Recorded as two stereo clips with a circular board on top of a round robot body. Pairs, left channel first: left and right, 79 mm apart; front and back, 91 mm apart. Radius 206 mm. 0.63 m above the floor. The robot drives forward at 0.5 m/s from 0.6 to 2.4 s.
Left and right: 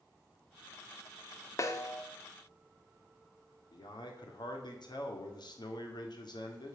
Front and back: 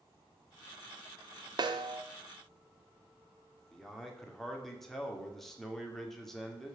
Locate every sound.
1.6 s a snare drum: 140° left, 0.5 m; by 2.0 s 150° left, 0.7 m
3.7 s a man speaking: 85° left, 2.5 m